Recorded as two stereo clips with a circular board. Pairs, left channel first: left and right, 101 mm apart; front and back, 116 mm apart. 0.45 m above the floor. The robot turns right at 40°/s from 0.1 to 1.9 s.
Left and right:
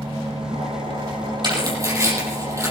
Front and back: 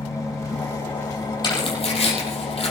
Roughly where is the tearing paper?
Ahead right.